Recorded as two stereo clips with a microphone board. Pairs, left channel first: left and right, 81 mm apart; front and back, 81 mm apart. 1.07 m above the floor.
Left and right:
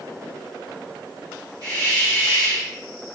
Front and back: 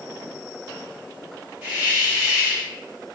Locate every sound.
1.6 s a hiss: 130° right, 2 m